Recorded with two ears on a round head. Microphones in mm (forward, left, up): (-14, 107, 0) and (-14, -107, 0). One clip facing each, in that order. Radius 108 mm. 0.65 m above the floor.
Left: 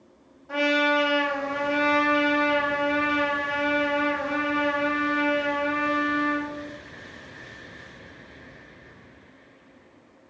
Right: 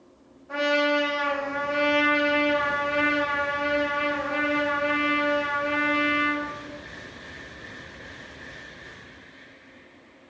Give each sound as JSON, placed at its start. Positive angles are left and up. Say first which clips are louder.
{"t": 0.5, "sound": "a trumpet", "louder": "even", "side_deg": 55, "distance_m": 1.2}